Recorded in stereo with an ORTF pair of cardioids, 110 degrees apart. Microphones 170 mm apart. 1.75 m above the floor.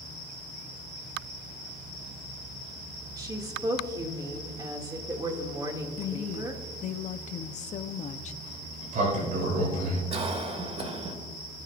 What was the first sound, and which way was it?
A woman speaking, 25° right.